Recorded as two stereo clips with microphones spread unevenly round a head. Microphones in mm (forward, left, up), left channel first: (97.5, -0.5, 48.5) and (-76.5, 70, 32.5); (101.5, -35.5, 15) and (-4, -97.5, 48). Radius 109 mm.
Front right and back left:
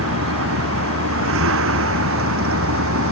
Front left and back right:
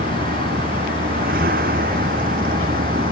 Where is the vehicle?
165° left.